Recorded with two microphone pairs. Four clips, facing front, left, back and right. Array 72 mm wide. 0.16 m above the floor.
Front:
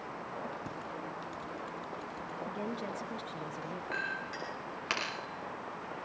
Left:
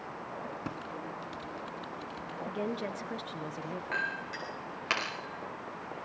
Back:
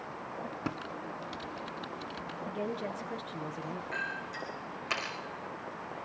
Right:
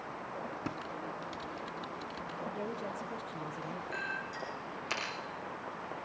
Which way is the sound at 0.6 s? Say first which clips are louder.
Even, back 3 dB; 175° left.